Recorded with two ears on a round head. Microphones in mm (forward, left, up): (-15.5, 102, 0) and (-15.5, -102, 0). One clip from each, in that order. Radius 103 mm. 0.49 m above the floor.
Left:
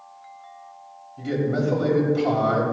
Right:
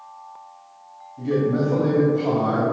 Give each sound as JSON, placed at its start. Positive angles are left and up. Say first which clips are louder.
{"t": 1.2, "sound": "a man speaking", "louder": "right 3 dB", "side_deg": 50, "distance_m": 3.0}